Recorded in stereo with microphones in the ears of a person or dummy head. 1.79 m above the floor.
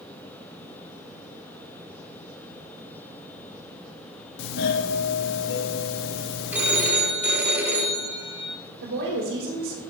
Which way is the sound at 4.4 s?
60° left (ahead or behind).